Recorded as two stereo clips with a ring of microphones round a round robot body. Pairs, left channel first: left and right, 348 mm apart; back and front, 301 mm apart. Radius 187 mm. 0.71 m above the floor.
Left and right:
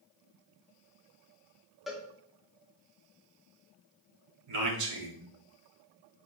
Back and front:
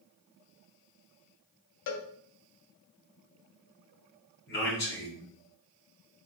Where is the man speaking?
125° right, 1.4 m.